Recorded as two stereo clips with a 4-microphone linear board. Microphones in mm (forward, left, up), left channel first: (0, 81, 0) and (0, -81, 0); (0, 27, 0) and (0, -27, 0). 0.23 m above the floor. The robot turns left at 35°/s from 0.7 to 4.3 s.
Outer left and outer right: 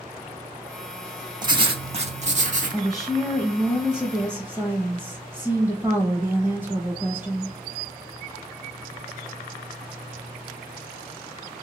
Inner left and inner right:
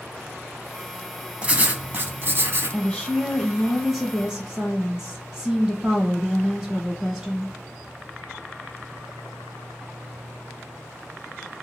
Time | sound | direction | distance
1.4 | writing | 30° right | 0.5 m
2.7 | a woman speaking | 5° left (ahead or behind) | 1.0 m